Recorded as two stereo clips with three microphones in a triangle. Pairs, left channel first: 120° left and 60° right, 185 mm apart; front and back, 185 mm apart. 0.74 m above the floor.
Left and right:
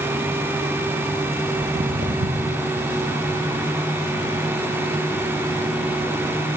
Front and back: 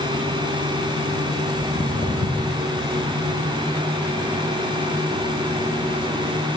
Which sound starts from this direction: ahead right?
Footsteps, at 1.6 s.